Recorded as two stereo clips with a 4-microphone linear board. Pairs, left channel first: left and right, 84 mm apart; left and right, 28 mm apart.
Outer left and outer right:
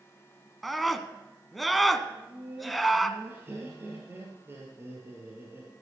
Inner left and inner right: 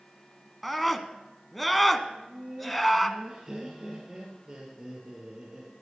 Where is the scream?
Centre (ahead or behind), 1.1 m.